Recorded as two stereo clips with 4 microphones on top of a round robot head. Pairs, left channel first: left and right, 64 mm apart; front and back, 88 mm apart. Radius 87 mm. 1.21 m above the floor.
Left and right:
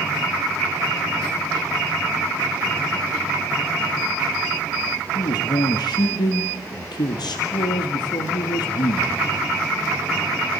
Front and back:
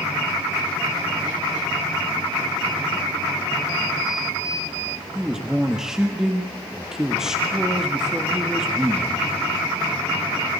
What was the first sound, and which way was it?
A man speaking, 95° left.